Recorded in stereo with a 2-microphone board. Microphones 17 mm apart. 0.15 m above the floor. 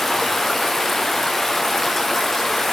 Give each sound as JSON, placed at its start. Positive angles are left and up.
{"t": 0.0, "sound": "running water", "side_deg": 20, "distance_m": 1.3}